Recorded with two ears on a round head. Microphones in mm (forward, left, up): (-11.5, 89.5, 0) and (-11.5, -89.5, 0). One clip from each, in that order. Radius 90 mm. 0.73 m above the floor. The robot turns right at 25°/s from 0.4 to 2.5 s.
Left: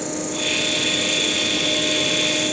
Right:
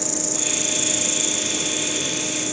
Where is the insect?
75° right, 1.5 m; by 2.5 s 20° right, 1.5 m.